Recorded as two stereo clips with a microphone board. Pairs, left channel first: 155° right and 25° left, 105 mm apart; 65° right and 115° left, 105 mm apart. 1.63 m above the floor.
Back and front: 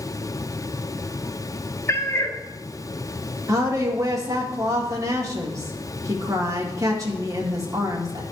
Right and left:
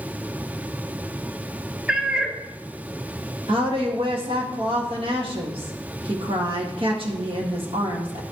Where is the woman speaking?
80° left, 1.8 m.